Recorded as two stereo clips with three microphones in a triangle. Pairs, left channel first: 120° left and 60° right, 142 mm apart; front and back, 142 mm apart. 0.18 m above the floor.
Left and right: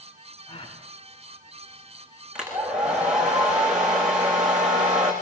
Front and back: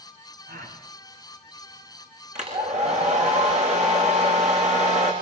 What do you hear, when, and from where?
0.5 s a gasp: 175° left, 9 m
2.4 s a hair dryer: 145° right, 8.5 m